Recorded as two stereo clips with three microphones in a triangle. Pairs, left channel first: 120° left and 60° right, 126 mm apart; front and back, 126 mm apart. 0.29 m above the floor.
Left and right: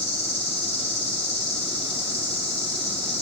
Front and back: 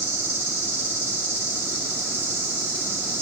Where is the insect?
110° left, 3 m.